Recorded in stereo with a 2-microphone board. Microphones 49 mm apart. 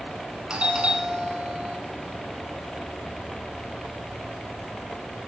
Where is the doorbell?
20° right (ahead or behind), 1.5 m.